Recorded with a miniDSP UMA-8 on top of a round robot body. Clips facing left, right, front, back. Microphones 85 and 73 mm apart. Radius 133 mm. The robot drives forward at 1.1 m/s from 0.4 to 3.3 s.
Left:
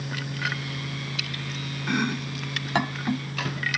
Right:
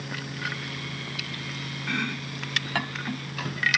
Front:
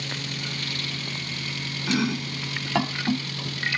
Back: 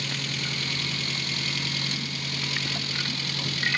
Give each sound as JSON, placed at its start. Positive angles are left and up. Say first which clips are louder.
{"t": 1.9, "sound": "chopping", "louder": "left 5 dB, front 9 dB", "azimuth_deg": 15}